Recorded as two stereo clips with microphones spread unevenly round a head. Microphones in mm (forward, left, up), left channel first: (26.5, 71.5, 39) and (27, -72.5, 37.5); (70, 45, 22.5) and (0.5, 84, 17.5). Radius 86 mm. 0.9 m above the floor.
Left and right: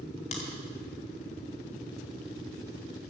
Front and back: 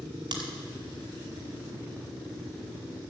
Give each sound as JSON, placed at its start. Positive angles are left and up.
{"t": 0.3, "sound": "a crack", "azimuth_deg": 135, "distance_m": 2.0}